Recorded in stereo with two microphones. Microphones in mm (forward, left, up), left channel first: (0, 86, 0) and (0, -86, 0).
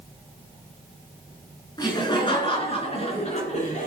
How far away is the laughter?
About 5 m.